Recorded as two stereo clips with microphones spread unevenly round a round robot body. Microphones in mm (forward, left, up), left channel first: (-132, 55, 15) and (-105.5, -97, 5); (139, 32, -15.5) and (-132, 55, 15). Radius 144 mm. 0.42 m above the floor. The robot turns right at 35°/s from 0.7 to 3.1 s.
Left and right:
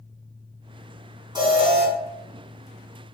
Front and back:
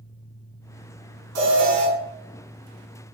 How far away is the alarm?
About 4.5 m.